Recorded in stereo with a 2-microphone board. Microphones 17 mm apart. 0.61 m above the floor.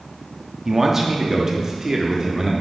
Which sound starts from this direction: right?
A man speaking, at 0.7 s.